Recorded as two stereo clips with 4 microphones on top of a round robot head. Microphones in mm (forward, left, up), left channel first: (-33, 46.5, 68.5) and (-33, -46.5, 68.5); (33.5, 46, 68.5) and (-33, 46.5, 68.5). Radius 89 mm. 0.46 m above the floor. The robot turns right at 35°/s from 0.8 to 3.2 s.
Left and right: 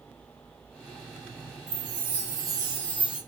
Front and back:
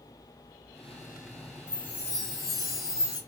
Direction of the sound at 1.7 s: 65° right.